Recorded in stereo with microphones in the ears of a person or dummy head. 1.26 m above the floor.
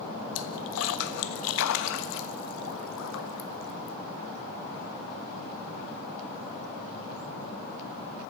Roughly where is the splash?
Left.